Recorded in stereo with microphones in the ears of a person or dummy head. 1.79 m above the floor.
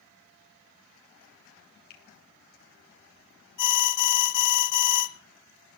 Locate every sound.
1.9 s a finger snap: 50° left (ahead or behind), 3.5 m
3.6 s an alarm: 65° left (ahead or behind), 1.2 m